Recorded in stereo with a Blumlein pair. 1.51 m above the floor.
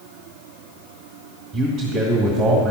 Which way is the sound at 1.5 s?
20° right.